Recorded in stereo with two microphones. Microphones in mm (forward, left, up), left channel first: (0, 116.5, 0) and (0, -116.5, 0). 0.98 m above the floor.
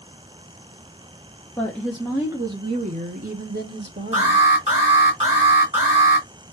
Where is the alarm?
25° right (ahead or behind), 3 m.